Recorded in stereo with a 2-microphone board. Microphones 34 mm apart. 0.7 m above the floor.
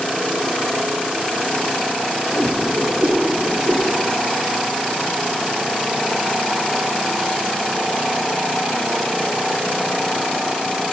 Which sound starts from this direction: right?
A whoosh, at 2.3 s.